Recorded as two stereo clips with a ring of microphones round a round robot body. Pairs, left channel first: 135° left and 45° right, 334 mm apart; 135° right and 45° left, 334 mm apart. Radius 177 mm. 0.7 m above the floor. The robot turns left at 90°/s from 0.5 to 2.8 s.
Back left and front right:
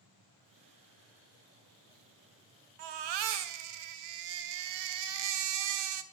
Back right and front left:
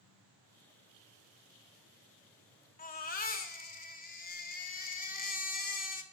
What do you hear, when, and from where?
2.8 s a baby crying: 65° right, 0.6 m